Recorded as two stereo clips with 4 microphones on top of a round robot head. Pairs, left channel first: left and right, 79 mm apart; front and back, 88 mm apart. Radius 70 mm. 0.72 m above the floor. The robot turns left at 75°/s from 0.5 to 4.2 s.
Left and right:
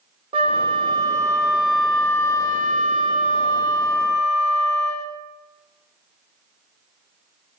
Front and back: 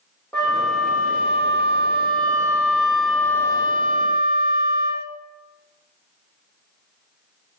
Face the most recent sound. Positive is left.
turn(degrees=5)